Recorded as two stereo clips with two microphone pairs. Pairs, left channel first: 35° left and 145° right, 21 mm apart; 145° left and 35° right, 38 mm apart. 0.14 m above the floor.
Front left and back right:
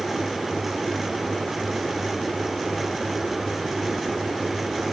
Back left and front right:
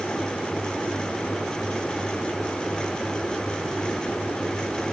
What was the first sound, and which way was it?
Only background noise.